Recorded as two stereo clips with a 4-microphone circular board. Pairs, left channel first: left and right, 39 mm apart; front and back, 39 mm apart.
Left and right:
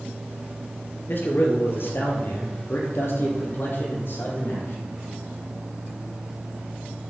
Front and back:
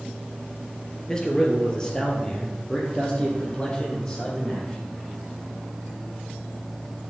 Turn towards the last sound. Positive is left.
turn(degrees=65)